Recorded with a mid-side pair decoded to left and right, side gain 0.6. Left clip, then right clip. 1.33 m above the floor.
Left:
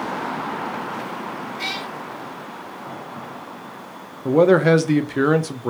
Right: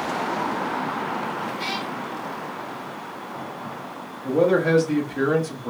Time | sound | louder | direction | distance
1.6 | a cat meowing | left 1 dB | 50° left | 1.8 m
4.2 | a man speaking | left 5 dB | 45° left | 0.6 m